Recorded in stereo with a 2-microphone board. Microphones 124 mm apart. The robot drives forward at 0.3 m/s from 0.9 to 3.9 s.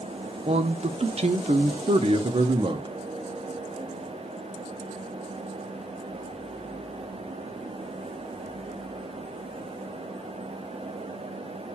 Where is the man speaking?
60° right (ahead or behind), 0.6 m; by 2.9 s 45° right (ahead or behind), 0.7 m.